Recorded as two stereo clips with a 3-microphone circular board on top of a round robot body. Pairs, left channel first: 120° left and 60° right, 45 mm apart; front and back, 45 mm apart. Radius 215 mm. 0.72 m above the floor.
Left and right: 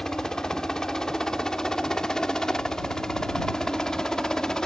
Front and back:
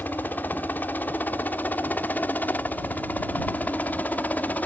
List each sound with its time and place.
0.0 s a helicopter: 45° left